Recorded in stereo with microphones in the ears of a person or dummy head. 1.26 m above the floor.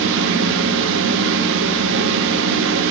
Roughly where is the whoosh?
I don't hear a whoosh.